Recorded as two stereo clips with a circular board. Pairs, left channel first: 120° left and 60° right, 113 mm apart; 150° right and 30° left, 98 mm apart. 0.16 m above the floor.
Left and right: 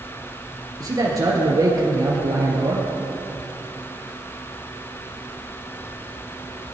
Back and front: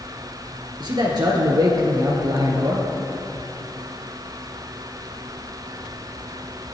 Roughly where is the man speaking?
Ahead.